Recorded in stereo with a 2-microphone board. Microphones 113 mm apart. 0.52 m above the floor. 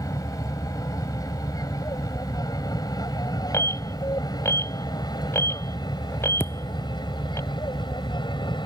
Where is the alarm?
25° left (ahead or behind).